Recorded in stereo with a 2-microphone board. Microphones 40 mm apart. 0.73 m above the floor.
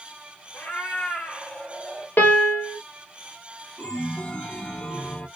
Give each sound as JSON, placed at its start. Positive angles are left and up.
{"t": 0.5, "sound": "a cat meowing", "side_deg": 50, "distance_m": 1.1}
{"t": 2.2, "sound": "a piano", "side_deg": 60, "distance_m": 1.1}
{"t": 3.8, "sound": "a chime", "side_deg": 30, "distance_m": 0.6}